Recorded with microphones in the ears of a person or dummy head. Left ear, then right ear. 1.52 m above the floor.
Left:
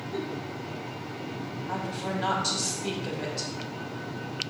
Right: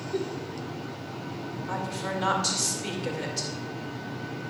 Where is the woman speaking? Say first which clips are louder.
Right 1 dB; 80° right, 2.5 m.